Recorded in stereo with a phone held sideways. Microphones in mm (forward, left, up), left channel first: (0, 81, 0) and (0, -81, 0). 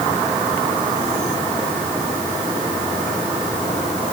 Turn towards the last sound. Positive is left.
No sound to turn to.